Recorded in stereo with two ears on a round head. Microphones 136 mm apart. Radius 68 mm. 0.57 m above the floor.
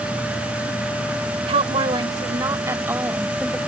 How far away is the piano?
No piano in this recording.